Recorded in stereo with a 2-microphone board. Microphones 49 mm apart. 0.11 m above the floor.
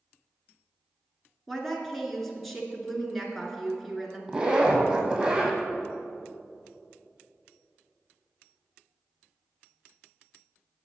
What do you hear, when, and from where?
1.5 s a woman speaking: centre (ahead or behind), 1.2 m
4.3 s a zipper: 15° right (ahead or behind), 1.4 m